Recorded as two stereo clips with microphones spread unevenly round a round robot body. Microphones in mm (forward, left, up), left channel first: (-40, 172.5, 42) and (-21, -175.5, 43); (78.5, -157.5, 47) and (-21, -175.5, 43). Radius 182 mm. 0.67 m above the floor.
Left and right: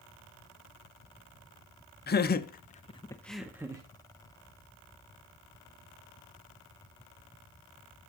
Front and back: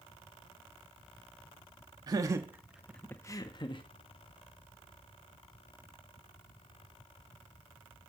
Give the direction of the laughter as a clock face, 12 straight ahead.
7 o'clock.